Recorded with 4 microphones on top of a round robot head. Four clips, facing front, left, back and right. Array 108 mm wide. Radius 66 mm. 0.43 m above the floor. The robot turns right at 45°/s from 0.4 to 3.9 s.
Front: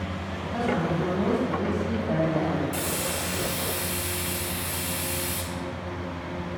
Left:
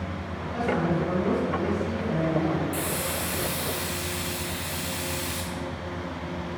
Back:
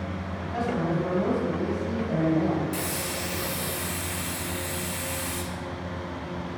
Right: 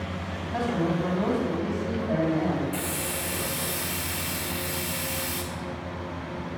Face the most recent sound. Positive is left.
turn(degrees=-130)